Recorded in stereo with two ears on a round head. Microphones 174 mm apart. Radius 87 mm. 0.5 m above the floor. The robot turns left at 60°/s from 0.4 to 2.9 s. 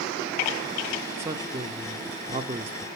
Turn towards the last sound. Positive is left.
turn(degrees=-130)